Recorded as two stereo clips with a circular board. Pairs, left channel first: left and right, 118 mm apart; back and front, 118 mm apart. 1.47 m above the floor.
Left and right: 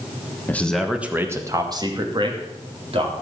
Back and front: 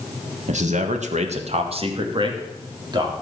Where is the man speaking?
15° left, 1.4 m; by 3.1 s 55° right, 3.5 m.